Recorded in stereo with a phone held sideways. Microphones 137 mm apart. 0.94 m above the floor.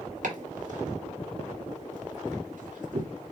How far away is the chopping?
About 1.4 m.